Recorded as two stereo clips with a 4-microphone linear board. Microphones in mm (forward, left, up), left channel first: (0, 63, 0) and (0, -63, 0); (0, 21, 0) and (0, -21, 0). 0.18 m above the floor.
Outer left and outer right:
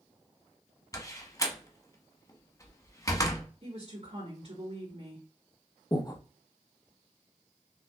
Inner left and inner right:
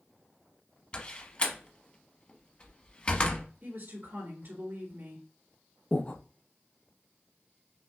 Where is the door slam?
25° left (ahead or behind), 0.8 m.